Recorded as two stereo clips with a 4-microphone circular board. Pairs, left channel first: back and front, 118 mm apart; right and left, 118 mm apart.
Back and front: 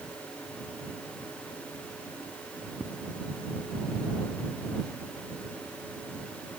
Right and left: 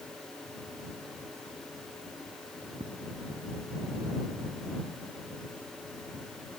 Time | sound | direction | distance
2.8 | footsteps | 100° left | ?